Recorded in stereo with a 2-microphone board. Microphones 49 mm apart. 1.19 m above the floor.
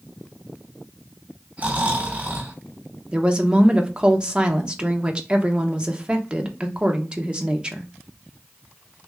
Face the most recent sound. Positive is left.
turn(degrees=-20)  # may be behind; listen again after turning